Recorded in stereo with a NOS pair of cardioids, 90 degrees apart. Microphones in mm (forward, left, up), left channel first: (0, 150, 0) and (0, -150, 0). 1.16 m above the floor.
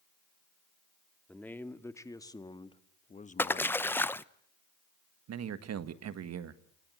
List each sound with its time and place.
1.3 s a man speaking: 5° left, 2 m; by 4.0 s 35° left, 1.2 m
3.4 s a splash: 5° left, 0.7 m
5.3 s a man speaking: 60° right, 1.7 m